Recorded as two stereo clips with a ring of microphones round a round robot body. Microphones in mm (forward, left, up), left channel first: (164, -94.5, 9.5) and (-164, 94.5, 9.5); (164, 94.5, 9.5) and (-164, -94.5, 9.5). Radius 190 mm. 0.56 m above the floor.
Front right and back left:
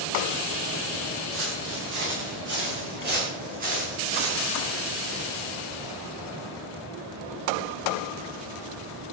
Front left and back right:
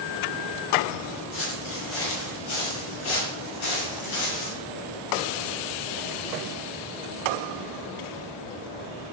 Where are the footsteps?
90° left, 10 m; by 4.6 s 75° left, 6.5 m.